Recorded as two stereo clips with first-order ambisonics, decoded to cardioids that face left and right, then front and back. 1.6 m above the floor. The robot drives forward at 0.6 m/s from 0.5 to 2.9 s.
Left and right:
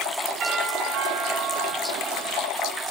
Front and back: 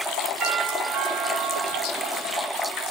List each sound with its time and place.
0.4 s a doorbell: 120° right, 4 m; by 2.5 s 130° right, 5 m